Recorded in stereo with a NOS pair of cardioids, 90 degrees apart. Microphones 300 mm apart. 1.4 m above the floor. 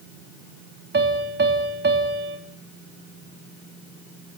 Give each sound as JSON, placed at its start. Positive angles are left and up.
{"t": 0.9, "sound": "a piano", "azimuth_deg": -35, "distance_m": 3.5}